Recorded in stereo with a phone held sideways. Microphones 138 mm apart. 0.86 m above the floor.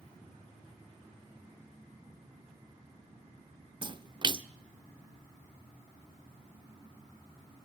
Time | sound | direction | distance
3.8 | a splash | 35° right (ahead or behind) | 0.5 m